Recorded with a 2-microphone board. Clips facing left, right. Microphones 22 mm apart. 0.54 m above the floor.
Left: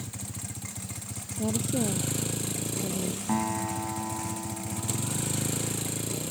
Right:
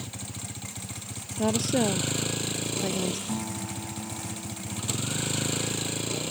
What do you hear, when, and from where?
0.0 s a vehicle: 30° right (ahead or behind)
1.4 s a woman speaking: 70° right (ahead or behind)
3.3 s a guitar: 60° left (ahead or behind)